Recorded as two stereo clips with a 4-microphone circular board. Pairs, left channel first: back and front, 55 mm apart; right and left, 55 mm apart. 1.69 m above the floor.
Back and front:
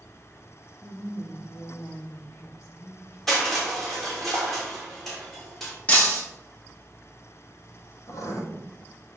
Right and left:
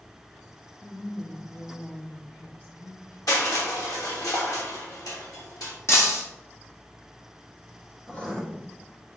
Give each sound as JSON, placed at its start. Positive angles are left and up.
{"t": 0.8, "sound": "a woman speaking", "azimuth_deg": -145, "distance_m": 1.3}
{"t": 3.3, "sound": "crushing", "azimuth_deg": -95, "distance_m": 3.0}
{"t": 5.9, "sound": "breaking glass", "azimuth_deg": -120, "distance_m": 2.0}
{"t": 8.1, "sound": "writing", "azimuth_deg": -160, "distance_m": 1.7}